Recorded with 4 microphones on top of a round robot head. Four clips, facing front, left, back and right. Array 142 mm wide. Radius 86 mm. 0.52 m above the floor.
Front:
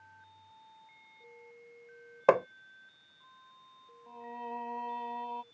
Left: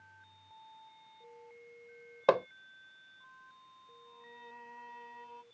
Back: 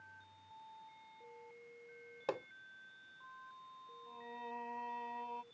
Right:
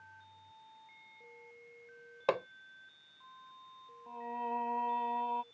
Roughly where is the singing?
Ahead right.